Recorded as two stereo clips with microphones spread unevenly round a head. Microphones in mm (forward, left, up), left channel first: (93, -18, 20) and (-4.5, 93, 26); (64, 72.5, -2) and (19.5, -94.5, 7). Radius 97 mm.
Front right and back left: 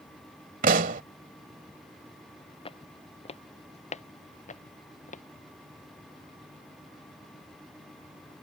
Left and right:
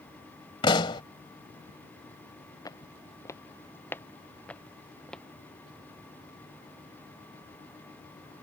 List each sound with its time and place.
0.6 s a pop: 140° left
2.6 s footsteps: 5° left; by 5.2 s 10° right